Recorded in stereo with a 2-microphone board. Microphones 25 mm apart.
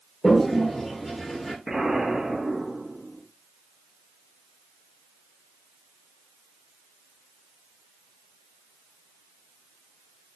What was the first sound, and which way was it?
A toilet flushing, 15° left (ahead or behind).